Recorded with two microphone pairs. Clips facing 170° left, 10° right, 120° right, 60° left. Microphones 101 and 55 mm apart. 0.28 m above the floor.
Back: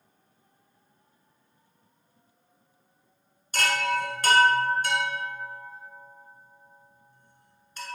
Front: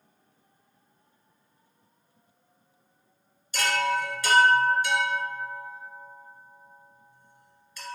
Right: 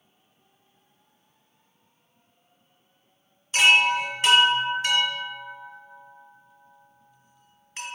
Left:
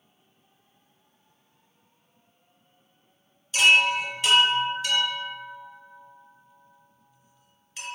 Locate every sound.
3.5 s a chime: 165° right, 1.8 m